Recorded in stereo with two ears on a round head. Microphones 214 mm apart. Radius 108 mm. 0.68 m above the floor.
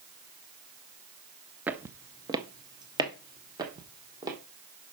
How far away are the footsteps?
About 0.6 m.